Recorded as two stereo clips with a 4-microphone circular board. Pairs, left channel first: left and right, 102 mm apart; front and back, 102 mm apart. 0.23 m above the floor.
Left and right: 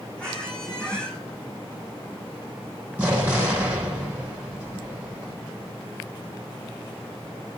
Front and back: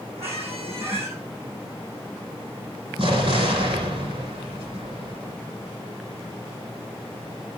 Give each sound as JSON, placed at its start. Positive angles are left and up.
{"t": 0.2, "sound": "a squeak", "azimuth_deg": 170, "distance_m": 5.5}
{"t": 3.0, "sound": "an explosion", "azimuth_deg": -165, "distance_m": 7.0}